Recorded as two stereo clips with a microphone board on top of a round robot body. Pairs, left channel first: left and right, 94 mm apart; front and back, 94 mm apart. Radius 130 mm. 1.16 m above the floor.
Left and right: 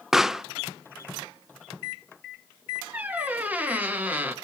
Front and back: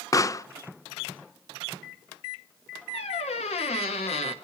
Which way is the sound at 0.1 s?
5° right.